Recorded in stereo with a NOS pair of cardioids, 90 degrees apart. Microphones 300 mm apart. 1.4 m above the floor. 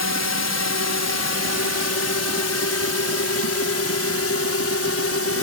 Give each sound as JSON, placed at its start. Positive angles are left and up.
{"t": 0.0, "sound": "a drone", "azimuth_deg": 60}